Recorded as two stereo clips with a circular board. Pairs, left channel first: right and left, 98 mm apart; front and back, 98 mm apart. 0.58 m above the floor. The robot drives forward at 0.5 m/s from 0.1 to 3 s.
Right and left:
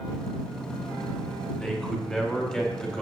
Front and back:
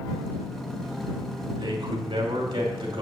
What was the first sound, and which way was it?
A man speaking, 170° right.